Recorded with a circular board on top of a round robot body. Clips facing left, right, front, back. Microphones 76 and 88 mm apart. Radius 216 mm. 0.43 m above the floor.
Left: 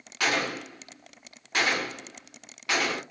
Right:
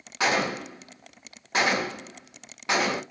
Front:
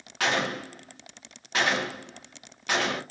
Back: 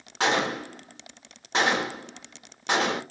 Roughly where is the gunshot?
Behind right.